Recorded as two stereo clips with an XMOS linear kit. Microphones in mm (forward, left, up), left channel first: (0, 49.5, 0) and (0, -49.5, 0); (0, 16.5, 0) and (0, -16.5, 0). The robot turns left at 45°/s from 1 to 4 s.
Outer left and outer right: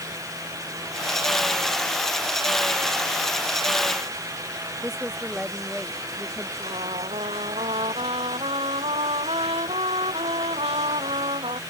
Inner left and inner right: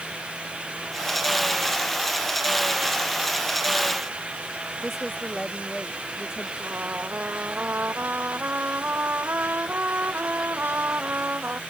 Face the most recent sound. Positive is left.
turn(degrees=-75)  # may be behind; listen again after turning